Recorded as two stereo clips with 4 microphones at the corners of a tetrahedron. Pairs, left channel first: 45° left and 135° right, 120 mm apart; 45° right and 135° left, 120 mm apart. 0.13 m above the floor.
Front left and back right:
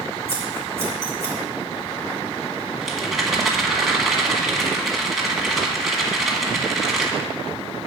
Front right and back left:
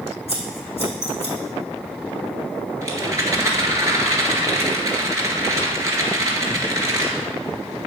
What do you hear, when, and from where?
0.3 s scissors: 70° right, 4 m
2.8 s a rattle: 135° left, 1.8 m